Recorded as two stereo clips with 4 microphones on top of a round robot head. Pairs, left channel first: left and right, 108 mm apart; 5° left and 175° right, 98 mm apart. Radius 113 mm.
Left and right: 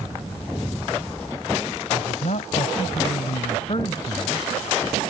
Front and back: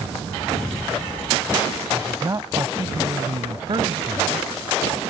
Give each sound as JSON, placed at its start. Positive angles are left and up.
{"t": 1.9, "sound": "a man speaking", "azimuth_deg": 125}